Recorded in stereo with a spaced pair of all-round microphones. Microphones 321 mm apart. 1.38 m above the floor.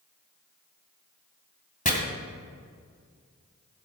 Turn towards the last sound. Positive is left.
turn(degrees=25)  # may be behind; listen again after turning